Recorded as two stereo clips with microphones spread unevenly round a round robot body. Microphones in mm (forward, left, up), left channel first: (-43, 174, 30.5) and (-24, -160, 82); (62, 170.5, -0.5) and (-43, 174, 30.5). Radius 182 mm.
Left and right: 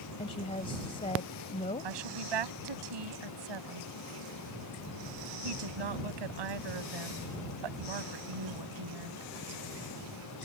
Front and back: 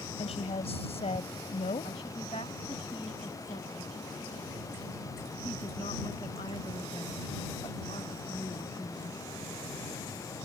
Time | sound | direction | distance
0.2 | a woman speaking | 20° left | ?
1.8 | a woman speaking | 70° right | ?